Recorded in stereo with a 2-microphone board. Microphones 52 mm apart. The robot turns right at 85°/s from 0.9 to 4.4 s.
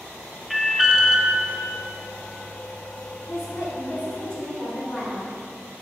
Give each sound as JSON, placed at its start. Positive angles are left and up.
{"t": 0.5, "sound": "an alarm", "side_deg": -5, "distance_m": 0.5}
{"t": 3.3, "sound": "a woman speaking", "azimuth_deg": 70, "distance_m": 1.5}